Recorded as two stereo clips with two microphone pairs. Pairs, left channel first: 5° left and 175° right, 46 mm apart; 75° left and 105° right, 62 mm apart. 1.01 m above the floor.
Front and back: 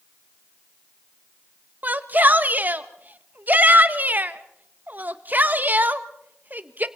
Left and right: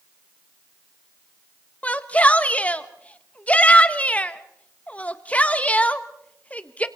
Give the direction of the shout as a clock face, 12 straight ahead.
7 o'clock.